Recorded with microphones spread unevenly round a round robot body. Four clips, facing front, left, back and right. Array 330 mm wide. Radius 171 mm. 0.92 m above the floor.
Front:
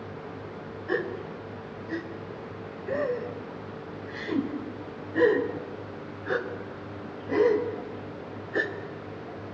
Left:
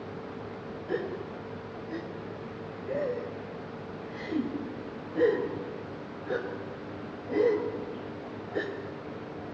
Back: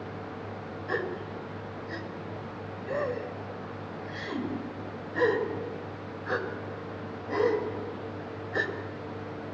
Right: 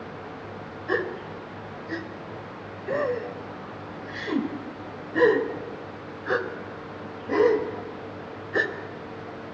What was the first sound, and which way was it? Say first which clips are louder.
A gasp: right 5 dB, front 3 dB; 95° right.